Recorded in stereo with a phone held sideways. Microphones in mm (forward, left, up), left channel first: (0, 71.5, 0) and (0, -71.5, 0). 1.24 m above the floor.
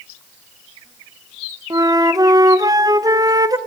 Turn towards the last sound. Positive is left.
turn(degrees=-30)  # may be behind; listen again after turning